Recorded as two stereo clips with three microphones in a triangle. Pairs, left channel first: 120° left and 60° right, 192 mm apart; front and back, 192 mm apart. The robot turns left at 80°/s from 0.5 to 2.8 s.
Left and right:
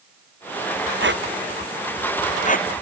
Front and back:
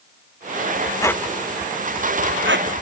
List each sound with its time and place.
1.0 s a squeak: 70° right; by 2.8 s 145° left